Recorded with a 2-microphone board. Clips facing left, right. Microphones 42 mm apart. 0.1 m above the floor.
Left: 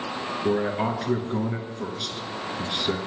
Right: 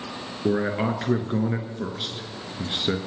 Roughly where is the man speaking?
Right.